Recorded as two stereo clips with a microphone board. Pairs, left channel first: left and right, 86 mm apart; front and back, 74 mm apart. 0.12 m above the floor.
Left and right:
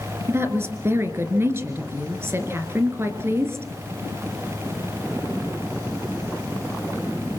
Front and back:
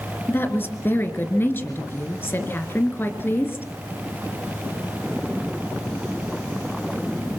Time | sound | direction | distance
0.3 | a woman speaking | 45° right | 2 m